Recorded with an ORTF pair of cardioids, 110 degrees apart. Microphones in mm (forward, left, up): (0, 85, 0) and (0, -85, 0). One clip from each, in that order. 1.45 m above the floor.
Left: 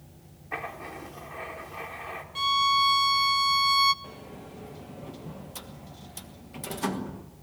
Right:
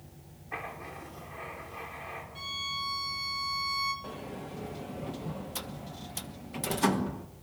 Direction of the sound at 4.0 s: 20° right.